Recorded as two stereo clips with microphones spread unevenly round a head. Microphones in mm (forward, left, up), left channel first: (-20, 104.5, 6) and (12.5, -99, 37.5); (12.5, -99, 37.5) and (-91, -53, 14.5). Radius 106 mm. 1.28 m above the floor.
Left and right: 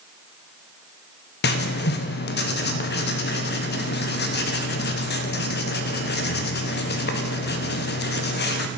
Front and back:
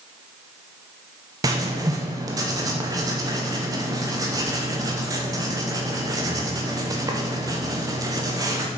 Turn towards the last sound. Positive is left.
turn(degrees=110)